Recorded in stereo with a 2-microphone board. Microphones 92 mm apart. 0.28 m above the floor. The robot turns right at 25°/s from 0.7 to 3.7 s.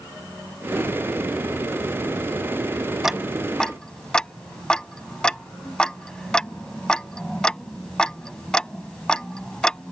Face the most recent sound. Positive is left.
turn(degrees=10)  # may be behind; listen again after turning